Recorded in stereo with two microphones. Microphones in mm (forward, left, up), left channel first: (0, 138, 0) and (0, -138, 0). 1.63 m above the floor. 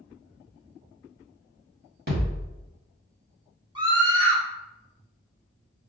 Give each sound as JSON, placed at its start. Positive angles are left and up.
{"t": 2.1, "sound": "a thud", "side_deg": -35, "distance_m": 1.7}
{"t": 3.8, "sound": "a scream", "side_deg": -15, "distance_m": 0.8}